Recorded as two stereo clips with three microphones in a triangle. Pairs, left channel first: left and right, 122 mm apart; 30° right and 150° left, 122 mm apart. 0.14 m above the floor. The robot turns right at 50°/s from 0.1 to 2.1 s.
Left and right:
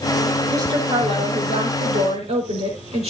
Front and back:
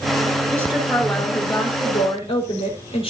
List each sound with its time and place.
0.5 s a woman speaking: 145° right, 4.5 m; by 3.1 s 65° right, 4.5 m